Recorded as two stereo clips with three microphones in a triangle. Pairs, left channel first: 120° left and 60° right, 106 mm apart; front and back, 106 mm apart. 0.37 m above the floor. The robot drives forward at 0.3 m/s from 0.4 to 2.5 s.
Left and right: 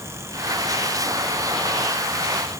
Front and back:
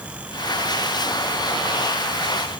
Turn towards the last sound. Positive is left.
No sound to turn to.